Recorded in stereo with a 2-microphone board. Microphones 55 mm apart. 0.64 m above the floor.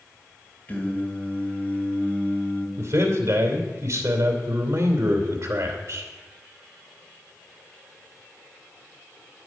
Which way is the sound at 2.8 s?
65° right (ahead or behind).